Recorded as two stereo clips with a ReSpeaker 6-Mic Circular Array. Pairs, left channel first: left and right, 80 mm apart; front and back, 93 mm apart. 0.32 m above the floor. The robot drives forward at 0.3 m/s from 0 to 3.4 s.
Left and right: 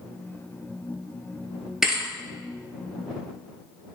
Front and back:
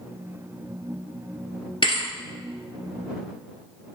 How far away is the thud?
About 0.5 m.